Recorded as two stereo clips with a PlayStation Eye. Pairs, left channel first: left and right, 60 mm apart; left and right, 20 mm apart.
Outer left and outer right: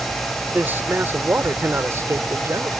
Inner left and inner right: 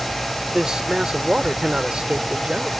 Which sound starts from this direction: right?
A man speaking, at 0.5 s.